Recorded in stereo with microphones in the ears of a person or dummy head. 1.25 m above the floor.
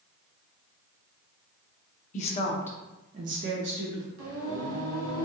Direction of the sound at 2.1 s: 40° left (ahead or behind).